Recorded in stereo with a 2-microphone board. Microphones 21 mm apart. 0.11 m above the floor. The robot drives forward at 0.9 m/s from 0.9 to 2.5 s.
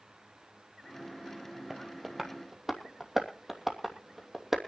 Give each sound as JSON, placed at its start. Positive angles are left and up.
{"t": 1.7, "sound": "tapping", "side_deg": -10, "distance_m": 2.0}